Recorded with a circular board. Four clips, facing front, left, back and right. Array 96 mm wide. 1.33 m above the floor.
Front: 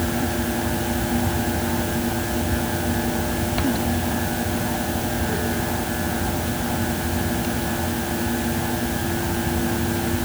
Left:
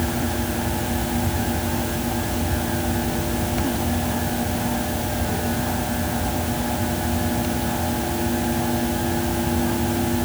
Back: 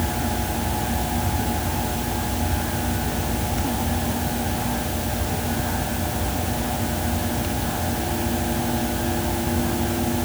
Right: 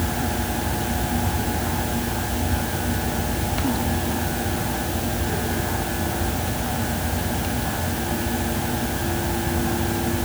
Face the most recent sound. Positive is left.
No sound to turn to.